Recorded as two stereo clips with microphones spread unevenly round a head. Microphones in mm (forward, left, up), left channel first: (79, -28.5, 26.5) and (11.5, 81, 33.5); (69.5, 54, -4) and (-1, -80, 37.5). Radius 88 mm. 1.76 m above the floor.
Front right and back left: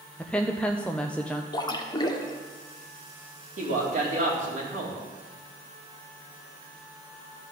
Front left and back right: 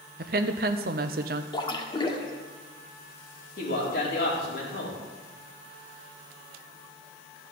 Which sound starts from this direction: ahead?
A splash, at 1.5 s.